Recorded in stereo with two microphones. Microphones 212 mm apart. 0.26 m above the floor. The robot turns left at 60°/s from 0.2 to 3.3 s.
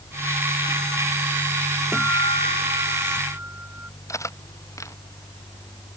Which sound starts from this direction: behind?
A guitar, at 1.9 s.